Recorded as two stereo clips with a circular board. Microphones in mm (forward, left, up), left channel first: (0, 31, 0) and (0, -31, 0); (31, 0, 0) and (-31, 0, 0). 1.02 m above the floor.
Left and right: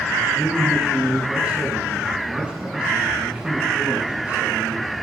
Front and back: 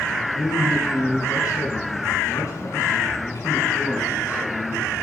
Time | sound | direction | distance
0.3 | a man speaking | 15° right | 6.5 m